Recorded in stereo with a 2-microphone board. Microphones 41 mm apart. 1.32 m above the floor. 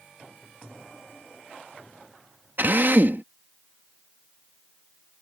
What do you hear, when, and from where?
2.6 s a drill: 55° right (ahead or behind)